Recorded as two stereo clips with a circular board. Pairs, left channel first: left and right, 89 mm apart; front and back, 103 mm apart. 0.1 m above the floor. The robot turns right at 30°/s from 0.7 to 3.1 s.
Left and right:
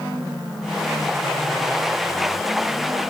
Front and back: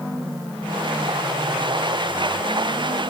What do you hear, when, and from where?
Only background noise.